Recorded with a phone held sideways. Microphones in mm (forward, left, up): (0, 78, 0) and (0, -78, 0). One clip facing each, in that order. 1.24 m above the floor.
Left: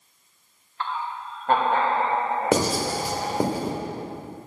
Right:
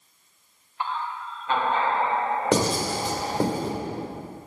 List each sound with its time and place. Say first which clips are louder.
0.8 s laughter: even; 15° right (ahead or behind), 0.5 m; by 3.5 s 70° left (ahead or behind), 3.5 m
2.5 s writing: left 1 dB; 5° left (ahead or behind), 1.0 m